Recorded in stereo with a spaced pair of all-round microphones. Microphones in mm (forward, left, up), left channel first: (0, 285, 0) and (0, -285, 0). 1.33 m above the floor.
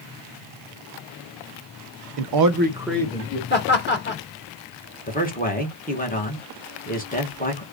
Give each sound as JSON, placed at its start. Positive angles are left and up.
{"t": 2.2, "sound": "a man speaking", "side_deg": -65, "distance_m": 0.6}
{"t": 3.5, "sound": "laughter", "side_deg": 20, "distance_m": 1.7}
{"t": 5.1, "sound": "a man speaking", "side_deg": 15, "distance_m": 1.2}